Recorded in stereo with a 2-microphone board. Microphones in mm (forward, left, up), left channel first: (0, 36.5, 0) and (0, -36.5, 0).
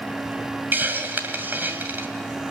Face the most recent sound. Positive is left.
turn(degrees=-25)  # may be behind; listen again after turning